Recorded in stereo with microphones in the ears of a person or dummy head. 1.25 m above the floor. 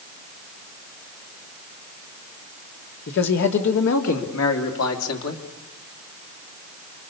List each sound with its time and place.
3.1 s a man speaking: 60° left (ahead or behind), 2.5 m; by 5.4 s 90° left, 2.5 m